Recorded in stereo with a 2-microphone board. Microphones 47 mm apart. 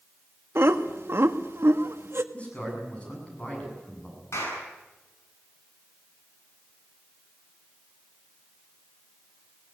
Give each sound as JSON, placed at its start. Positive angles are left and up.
{"t": 0.6, "sound": "laughter", "side_deg": -60, "distance_m": 1.4}
{"t": 2.3, "sound": "a man speaking", "side_deg": 25, "distance_m": 8.0}
{"t": 4.3, "sound": "a clap", "side_deg": 75, "distance_m": 9.0}